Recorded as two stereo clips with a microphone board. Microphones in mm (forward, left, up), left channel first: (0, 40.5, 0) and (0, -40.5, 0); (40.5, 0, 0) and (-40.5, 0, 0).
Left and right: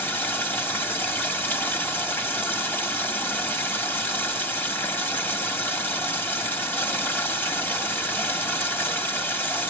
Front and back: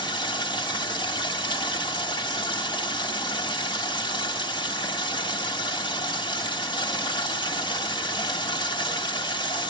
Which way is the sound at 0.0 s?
25° left.